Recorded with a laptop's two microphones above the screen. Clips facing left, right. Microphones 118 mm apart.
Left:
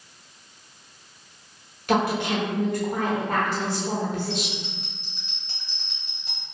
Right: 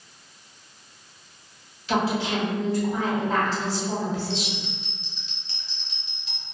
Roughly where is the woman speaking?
Left.